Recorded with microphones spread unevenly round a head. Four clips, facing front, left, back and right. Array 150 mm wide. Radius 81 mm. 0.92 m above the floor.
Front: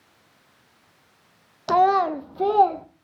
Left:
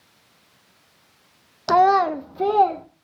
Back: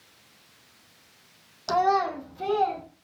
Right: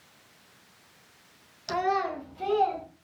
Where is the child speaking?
70° left, 0.7 m; by 2.8 s 45° left, 1.2 m.